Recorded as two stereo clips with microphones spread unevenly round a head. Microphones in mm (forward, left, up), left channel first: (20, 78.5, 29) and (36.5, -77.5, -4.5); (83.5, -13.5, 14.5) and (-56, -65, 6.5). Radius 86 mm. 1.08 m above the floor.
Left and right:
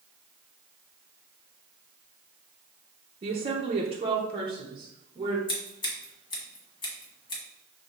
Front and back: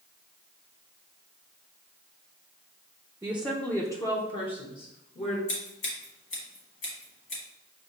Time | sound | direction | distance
3.2 | a woman speaking | 95° right | 0.6 m
5.5 | scissors | 55° left | 1.4 m